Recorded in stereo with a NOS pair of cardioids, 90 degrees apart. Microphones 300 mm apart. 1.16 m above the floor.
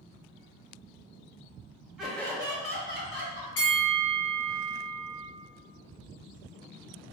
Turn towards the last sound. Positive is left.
turn(degrees=55)